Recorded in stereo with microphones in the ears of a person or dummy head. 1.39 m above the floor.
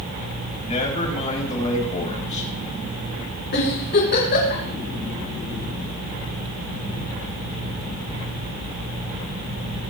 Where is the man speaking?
35° left (ahead or behind), 3.5 m.